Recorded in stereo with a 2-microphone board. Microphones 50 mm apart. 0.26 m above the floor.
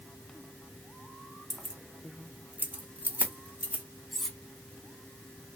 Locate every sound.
1.5 s keys jangling: 10° right (ahead or behind), 0.9 m; by 3.8 s 30° right (ahead or behind), 1.2 m
4.1 s cutlery clinking: centre (ahead or behind), 1.3 m